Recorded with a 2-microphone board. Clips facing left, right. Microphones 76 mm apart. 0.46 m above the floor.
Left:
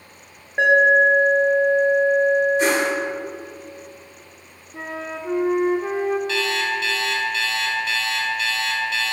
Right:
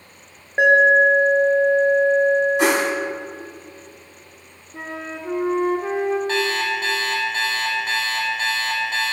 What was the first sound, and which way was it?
An alarm, 15° right (ahead or behind).